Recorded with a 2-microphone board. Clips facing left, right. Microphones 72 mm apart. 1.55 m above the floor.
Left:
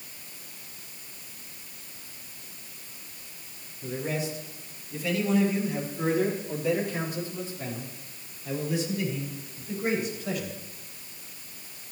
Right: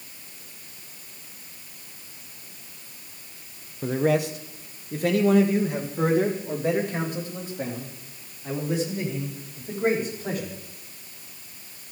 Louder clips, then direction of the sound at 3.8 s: Right 9 dB; 75° right (ahead or behind).